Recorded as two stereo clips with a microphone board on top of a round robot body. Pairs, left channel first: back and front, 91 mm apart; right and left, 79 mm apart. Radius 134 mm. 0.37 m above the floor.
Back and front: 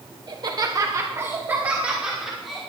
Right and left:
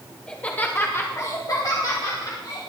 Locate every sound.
0.3 s laughter: 15° right, 2.5 m; by 2.6 s 90° right, 3 m